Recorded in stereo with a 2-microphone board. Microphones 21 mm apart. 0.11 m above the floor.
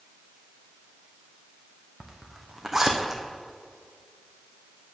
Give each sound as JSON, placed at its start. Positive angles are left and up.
{"t": 2.0, "sound": "a zipper", "side_deg": -20, "distance_m": 1.3}